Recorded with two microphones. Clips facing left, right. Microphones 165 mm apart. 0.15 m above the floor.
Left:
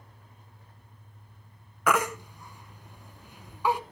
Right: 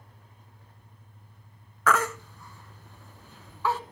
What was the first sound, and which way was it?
A baby crying, 15° left (ahead or behind).